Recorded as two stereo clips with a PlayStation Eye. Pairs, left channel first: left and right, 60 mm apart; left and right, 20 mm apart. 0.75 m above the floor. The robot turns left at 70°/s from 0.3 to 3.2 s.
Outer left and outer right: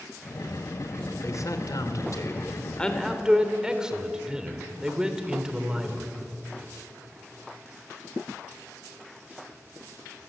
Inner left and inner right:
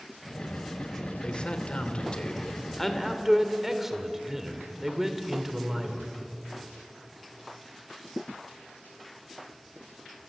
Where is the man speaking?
125° left, 2.5 m; by 6.1 s 15° right, 2.5 m.